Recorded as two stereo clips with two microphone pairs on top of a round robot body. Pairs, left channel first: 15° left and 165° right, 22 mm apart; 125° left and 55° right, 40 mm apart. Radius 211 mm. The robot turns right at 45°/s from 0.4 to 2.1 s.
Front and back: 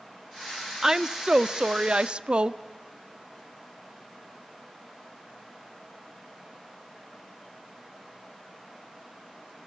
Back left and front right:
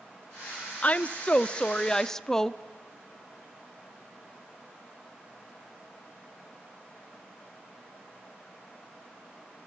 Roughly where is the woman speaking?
Behind left.